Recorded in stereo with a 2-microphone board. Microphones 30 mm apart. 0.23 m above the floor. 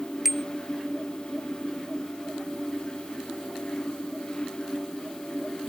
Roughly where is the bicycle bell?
Centre.